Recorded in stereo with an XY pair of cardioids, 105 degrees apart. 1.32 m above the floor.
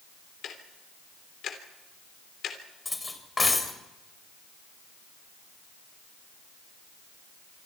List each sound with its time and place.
0.4 s ticking: 65° left, 3 m
2.9 s cutlery clinking: 20° left, 3.5 m